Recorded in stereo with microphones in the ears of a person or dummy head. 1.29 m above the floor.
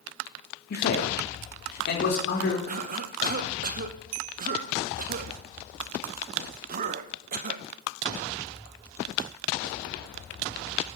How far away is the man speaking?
About 3 m.